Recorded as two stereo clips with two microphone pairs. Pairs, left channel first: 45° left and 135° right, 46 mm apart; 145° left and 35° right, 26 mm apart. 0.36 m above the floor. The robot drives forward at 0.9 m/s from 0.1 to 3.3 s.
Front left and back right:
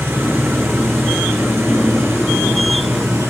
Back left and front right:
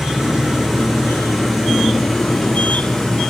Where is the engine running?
110° right, 5.5 m; by 3.3 s 130° right, 6.5 m.